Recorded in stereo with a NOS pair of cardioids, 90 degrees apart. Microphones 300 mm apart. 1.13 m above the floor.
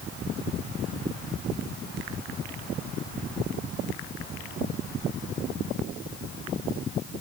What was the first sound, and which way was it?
Only background noise.